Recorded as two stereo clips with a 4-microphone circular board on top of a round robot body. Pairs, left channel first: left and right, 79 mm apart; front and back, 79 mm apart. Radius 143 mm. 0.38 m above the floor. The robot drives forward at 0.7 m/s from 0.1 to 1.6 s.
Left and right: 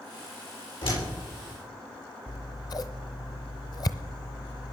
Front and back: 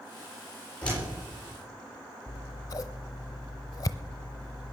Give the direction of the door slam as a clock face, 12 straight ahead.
10 o'clock.